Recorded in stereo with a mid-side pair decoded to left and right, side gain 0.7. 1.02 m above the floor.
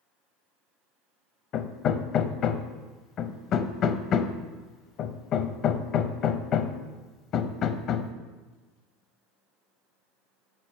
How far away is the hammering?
About 0.5 m.